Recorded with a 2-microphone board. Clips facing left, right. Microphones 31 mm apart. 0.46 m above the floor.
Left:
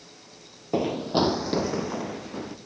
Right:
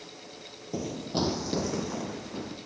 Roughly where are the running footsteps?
Left.